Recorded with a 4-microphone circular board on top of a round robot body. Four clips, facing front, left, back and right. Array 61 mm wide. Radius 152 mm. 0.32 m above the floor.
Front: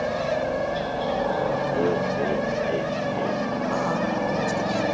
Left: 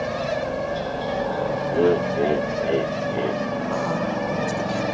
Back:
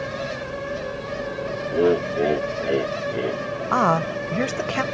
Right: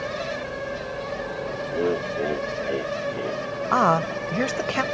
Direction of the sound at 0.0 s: 30° left.